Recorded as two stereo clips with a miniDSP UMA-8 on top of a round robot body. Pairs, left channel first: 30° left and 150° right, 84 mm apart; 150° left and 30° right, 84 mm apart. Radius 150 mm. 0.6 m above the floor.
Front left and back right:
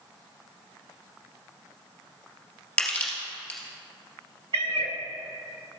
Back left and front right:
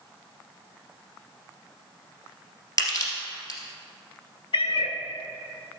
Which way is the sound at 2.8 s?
105° left.